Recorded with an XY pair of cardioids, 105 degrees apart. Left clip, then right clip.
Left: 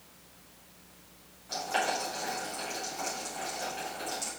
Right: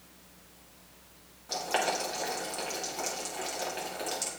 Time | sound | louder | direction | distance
1.5 | boiling | right 1 dB | 45° right | 2.5 m